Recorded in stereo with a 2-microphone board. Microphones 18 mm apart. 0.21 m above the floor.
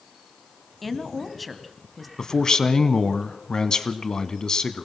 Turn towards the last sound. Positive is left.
turn(degrees=40)  # may be behind; listen again after turning